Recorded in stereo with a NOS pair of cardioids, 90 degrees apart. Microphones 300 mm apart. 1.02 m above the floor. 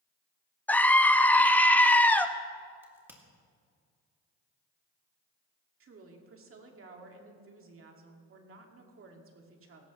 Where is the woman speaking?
45° right, 2 m.